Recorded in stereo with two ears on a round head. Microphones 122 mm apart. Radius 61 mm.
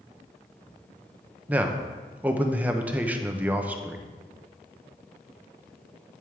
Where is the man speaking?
10° right (ahead or behind), 0.5 m.